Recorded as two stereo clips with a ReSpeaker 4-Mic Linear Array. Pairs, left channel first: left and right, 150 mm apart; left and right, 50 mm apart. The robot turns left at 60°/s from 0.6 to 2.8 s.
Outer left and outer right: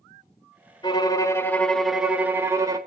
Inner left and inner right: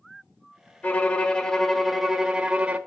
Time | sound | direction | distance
0.8 | a violin | 25° left (ahead or behind) | 1.0 m